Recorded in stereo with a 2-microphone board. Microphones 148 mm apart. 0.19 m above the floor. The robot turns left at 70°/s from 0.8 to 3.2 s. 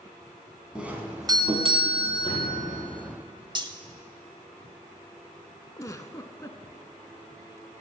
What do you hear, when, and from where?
0.8 s a doorbell: 10° right, 1.8 m; by 2.5 s 130° right, 1.8 m
2.2 s a door slam: 35° left (ahead or behind), 4.5 m; by 2.6 s 60° left (ahead or behind), 4.5 m
3.5 s cutlery clinking: 35° right (ahead or behind), 0.7 m
5.8 s a giggle: 25° left (ahead or behind), 0.8 m